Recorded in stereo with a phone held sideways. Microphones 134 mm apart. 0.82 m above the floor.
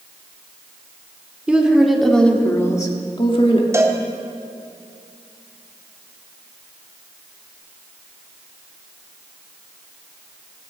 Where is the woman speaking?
10° right (ahead or behind), 3 m; by 3.6 s 55° left (ahead or behind), 2.5 m.